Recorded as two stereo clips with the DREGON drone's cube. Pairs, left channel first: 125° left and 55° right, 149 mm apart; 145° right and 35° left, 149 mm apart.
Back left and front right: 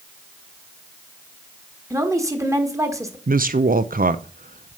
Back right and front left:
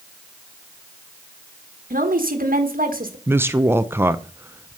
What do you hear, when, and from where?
1.9 s a woman speaking: 15° left, 1.5 m
3.3 s a woman speaking: 40° right, 0.5 m